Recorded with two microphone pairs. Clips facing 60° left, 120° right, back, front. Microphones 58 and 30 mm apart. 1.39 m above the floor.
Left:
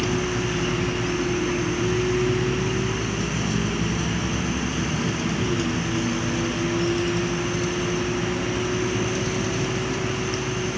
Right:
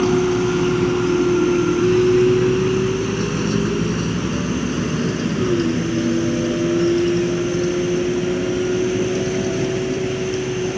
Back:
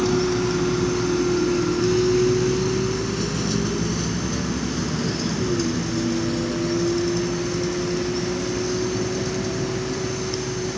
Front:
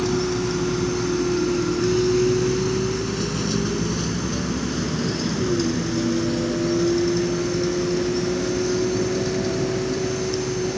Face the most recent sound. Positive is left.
turn(degrees=-70)